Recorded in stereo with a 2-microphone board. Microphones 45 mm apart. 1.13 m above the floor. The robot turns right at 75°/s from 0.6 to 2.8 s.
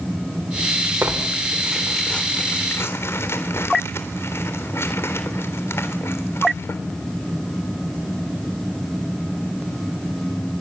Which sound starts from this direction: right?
Tearing paper, at 1.0 s.